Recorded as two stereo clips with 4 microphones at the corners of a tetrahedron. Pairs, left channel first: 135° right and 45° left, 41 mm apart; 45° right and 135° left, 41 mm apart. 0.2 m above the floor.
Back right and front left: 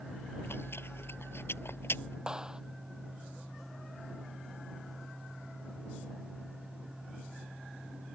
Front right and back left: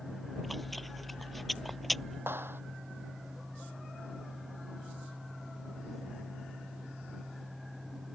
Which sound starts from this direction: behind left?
A clap, at 2.3 s.